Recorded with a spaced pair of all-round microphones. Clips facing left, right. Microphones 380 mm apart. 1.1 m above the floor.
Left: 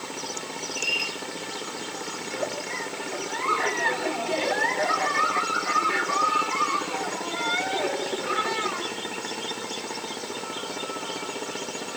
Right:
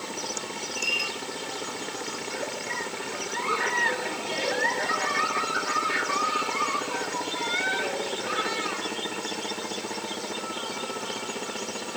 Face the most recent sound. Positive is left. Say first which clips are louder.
# left 6 dB
turn(degrees=65)  # may be behind; listen again after turning